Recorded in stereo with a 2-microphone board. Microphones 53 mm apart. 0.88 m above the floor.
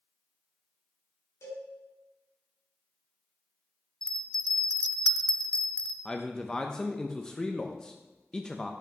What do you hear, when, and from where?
1.4 s a cowbell: 75° left (ahead or behind), 3.5 m
4.0 s a bell: 15° left (ahead or behind), 0.7 m
6.0 s a man speaking: 15° left (ahead or behind), 0.6 m